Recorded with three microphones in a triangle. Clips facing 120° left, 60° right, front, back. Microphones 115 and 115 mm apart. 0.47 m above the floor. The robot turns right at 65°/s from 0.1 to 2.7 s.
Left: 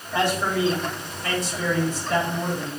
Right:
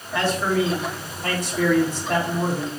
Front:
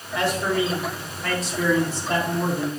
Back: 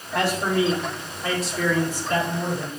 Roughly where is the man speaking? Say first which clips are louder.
Right 1 dB, back 1 dB; behind.